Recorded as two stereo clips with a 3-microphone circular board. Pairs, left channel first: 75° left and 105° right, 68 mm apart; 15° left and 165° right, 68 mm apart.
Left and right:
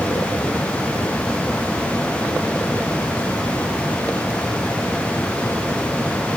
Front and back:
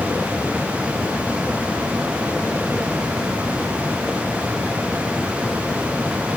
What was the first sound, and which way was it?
Only background noise.